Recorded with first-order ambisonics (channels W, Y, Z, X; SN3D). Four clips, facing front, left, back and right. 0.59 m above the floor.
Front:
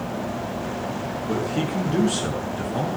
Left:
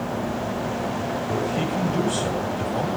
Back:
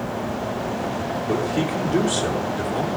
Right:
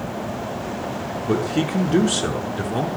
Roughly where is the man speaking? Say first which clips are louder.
Right 6 dB, back 2 dB; right.